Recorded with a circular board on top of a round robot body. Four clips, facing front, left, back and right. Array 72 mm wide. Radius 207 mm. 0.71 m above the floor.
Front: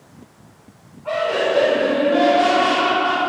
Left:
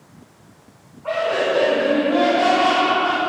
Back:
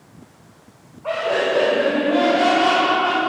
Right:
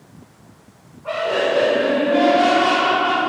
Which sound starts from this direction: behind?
Laughter, at 1.0 s.